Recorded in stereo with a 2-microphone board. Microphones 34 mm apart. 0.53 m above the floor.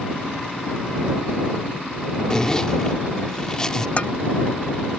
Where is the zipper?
20° left (ahead or behind).